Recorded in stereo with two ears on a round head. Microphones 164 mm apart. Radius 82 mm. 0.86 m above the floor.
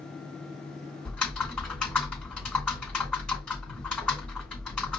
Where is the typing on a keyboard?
5° left (ahead or behind), 2.5 m.